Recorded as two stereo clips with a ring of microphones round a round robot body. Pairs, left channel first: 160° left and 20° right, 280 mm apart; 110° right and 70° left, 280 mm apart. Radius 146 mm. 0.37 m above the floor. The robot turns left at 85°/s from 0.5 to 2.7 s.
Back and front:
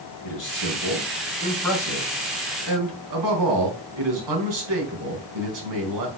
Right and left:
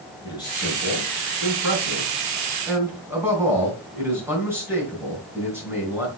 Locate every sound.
0.2 s a man speaking: 170° left, 4 m; by 6.1 s 15° right, 4 m